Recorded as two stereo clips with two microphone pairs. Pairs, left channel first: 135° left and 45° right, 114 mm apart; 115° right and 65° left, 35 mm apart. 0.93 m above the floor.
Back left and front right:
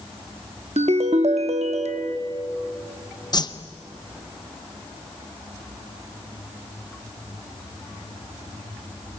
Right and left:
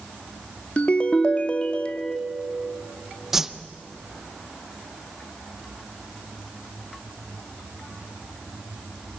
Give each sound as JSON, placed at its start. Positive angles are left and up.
{"t": 0.8, "sound": "a ringtone", "azimuth_deg": -60, "distance_m": 0.8}
{"t": 3.3, "sound": "a whoosh", "azimuth_deg": 140, "distance_m": 0.6}